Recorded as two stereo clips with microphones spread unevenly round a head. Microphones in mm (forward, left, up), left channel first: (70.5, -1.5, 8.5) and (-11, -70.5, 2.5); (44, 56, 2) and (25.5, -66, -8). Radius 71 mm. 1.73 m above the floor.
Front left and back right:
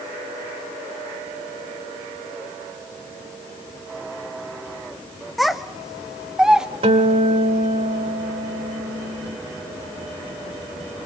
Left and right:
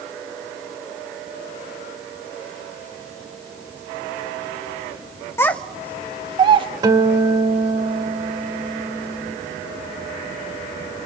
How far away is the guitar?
About 2.0 m.